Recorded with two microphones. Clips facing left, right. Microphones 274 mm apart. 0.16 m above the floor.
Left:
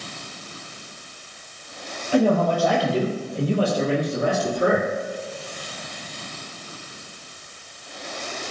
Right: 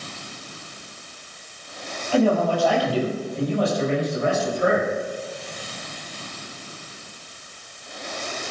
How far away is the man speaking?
About 4 m.